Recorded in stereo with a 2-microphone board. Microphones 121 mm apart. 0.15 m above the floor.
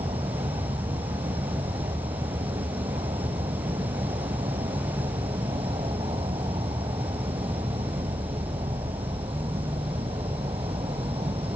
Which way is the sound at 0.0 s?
50° right (ahead or behind).